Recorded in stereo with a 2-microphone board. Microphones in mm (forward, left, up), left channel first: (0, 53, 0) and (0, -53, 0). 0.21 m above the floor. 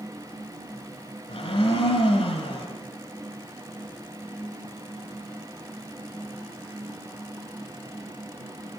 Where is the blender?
65° left (ahead or behind), 1.9 m.